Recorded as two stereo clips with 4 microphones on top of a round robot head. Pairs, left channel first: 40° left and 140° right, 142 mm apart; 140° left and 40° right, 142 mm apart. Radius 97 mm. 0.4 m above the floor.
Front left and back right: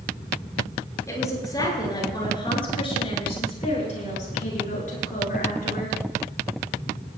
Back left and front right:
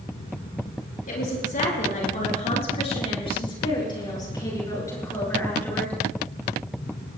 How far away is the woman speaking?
About 8.5 m.